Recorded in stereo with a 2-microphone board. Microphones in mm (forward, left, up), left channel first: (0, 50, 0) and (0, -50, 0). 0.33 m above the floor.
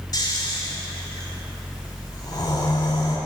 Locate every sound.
0.1 s snoring: 40° left (ahead or behind), 1.4 m